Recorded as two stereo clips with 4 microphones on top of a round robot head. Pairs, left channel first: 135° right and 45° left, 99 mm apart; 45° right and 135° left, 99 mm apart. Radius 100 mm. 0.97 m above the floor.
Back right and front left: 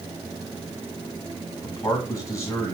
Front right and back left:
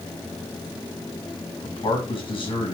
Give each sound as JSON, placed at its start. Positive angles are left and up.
{"t": 1.6, "sound": "a man speaking", "azimuth_deg": -75, "distance_m": 1.9}